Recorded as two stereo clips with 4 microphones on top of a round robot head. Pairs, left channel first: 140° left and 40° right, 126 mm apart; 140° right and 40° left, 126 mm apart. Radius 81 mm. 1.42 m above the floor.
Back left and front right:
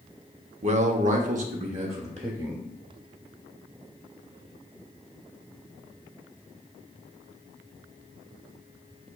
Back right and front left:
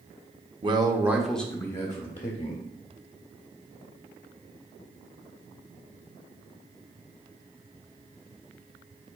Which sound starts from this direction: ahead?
A man speaking, at 0.6 s.